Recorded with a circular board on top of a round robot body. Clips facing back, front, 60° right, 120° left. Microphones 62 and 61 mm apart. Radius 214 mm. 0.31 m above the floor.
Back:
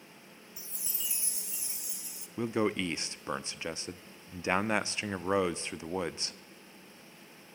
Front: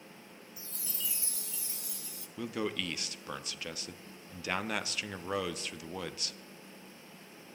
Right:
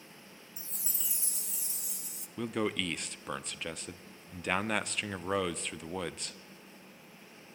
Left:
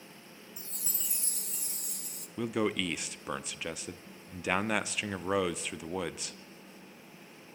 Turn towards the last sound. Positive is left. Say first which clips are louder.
# back 5 dB, left 2 dB
turn(degrees=-160)